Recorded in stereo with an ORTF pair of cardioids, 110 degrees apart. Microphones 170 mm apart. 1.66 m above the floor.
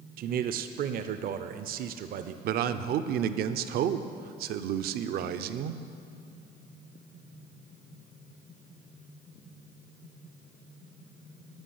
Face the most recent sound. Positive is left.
turn(degrees=-70)